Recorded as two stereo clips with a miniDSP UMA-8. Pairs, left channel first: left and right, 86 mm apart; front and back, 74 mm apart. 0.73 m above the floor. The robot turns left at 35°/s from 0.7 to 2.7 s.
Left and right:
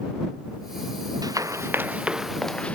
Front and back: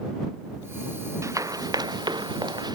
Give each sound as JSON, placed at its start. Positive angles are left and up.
{"t": 1.2, "sound": "running footsteps", "azimuth_deg": -135}